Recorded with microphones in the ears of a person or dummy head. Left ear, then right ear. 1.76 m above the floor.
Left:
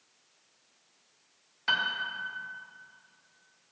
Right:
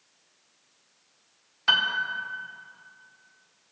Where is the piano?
15° right (ahead or behind), 0.6 m.